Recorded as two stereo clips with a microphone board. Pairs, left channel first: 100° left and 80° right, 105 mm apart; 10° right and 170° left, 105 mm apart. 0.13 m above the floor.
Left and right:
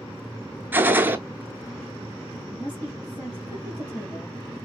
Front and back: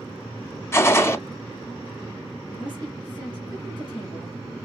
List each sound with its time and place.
0.7 s a gunshot: 40° right, 0.5 m
2.5 s a woman speaking: 60° left, 2.5 m